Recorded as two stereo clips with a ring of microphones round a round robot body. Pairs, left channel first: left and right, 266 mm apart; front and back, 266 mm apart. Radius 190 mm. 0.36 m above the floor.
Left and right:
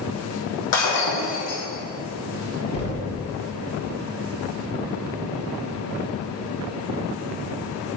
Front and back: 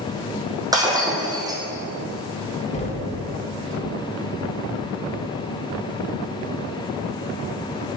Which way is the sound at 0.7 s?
105° left.